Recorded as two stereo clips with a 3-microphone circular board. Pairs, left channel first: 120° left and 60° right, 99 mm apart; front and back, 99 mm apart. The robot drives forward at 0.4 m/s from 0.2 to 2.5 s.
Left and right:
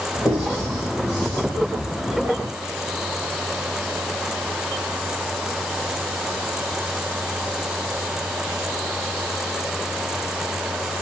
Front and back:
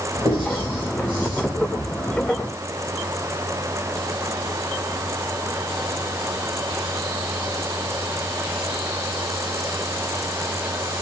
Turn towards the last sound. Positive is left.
turn(degrees=170)